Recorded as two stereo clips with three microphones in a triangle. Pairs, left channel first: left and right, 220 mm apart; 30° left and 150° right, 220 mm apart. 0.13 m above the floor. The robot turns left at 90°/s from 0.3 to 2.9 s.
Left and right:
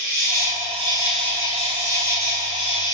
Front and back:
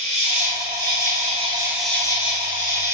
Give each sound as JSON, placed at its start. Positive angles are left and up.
{"t": 0.0, "sound": "an insect", "azimuth_deg": -100, "distance_m": 1.1}